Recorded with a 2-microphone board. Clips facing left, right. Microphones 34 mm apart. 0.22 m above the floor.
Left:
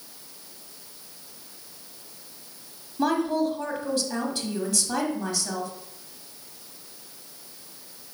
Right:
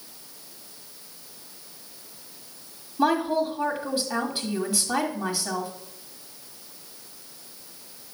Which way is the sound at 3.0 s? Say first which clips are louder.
Right 1 dB; 20° right (ahead or behind).